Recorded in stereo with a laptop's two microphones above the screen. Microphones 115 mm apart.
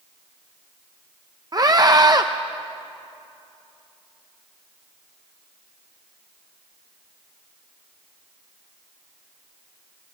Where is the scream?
35° right (ahead or behind), 0.6 m.